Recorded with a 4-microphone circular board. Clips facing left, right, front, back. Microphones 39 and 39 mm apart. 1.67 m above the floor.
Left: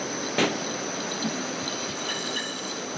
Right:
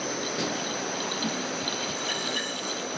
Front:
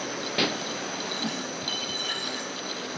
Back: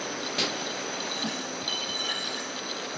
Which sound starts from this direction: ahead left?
A pop, at 0.4 s.